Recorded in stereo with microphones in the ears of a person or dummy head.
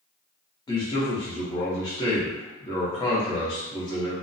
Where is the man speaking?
20° left (ahead or behind), 0.7 m.